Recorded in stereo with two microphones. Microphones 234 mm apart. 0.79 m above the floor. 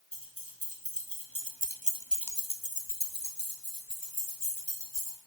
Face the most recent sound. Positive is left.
turn(degrees=55)  # may be behind; listen again after turning